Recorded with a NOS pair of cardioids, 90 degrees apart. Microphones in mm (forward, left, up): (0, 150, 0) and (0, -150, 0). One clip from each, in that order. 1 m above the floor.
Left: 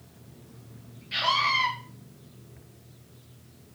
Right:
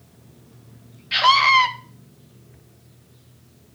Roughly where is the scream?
Ahead right.